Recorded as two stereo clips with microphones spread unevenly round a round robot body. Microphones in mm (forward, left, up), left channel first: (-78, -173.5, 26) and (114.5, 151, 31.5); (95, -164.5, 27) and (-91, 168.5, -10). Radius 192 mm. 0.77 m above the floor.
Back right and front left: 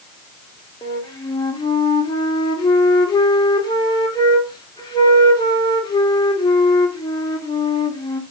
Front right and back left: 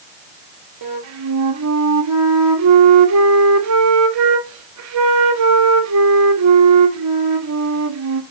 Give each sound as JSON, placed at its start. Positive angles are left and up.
{"t": 0.8, "sound": "a flute", "azimuth_deg": 160, "distance_m": 2.0}